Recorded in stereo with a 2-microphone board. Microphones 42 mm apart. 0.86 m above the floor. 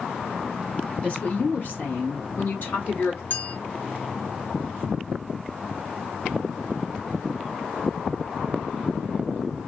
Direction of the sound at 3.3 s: 50° left (ahead or behind).